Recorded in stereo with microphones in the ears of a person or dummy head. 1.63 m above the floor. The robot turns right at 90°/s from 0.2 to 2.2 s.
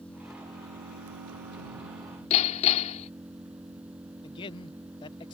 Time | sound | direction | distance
0.0 | an engine running | 170° left | ?
2.3 | hammering | 40° left (ahead or behind) | ?
4.2 | a man speaking | 30° left (ahead or behind) | ?